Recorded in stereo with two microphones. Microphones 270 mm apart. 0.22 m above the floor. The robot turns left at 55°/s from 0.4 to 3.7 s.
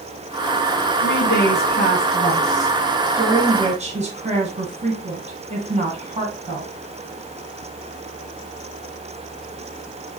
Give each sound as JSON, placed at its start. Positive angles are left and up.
{"t": 1.0, "sound": "a woman speaking", "side_deg": 40, "distance_m": 1.4}